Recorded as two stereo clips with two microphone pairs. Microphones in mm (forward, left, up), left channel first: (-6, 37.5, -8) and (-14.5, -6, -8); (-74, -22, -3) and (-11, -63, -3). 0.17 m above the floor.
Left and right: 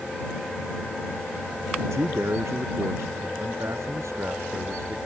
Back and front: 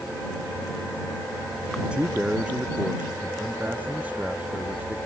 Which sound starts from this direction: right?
A man speaking, at 1.8 s.